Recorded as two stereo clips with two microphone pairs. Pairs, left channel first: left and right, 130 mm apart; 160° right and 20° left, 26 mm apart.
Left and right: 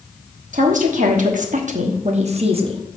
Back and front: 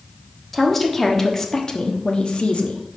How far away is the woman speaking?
About 1.4 m.